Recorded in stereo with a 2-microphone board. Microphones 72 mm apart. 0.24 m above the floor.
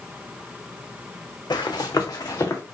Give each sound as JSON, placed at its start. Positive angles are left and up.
{"t": 1.5, "sound": "running footsteps", "side_deg": 80, "distance_m": 1.0}